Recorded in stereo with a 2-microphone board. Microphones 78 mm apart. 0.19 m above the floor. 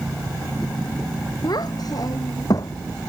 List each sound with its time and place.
1.4 s a child speaking: 55° left (ahead or behind); by 2.8 s 50° left (ahead or behind)